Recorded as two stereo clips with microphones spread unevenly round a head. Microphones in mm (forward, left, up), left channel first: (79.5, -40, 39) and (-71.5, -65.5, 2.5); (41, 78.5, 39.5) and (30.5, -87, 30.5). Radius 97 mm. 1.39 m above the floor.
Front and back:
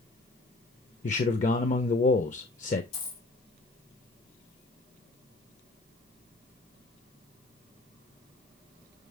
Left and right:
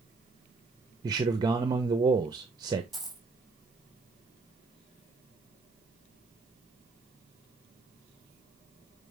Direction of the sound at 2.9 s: 5° right.